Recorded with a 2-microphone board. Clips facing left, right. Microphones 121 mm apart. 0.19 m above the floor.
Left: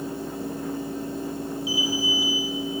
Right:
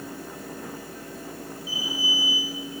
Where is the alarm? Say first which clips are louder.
Left 4 dB; 75° left (ahead or behind), 4.5 m.